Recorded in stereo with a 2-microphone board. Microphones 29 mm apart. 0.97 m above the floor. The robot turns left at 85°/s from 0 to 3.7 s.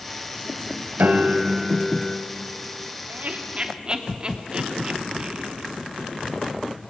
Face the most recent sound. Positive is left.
turn(degrees=-35)  # may be behind; listen again after turning